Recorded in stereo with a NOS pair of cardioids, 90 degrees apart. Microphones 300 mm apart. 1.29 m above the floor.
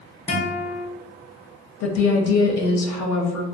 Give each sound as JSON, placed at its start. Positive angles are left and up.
{"t": 0.3, "sound": "a guitar", "azimuth_deg": 20, "distance_m": 0.8}
{"t": 1.8, "sound": "a woman speaking", "azimuth_deg": 65, "distance_m": 0.6}